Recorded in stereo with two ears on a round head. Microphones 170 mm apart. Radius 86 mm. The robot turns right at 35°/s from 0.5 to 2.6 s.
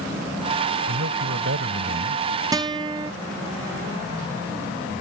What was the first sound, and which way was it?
A man speaking, 100° right.